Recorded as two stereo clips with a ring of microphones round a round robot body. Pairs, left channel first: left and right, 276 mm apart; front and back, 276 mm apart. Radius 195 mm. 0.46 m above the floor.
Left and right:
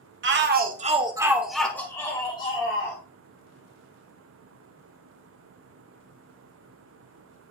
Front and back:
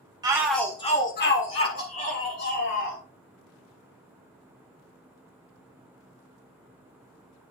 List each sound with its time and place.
0.2 s a shout: 110° right, 1.7 m; by 3.0 s 20° left, 3.5 m